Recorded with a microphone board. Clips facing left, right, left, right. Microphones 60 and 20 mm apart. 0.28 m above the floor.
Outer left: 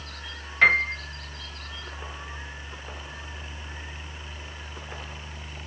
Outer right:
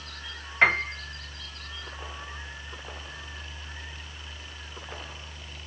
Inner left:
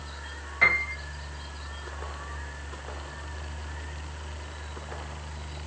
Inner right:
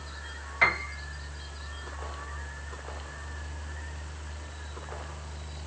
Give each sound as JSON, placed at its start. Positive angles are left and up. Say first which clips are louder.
{"t": 0.6, "sound": "a piano", "louder": "outer left 3 dB, inner left 3 dB", "side_deg": -15, "distance_m": 1.6}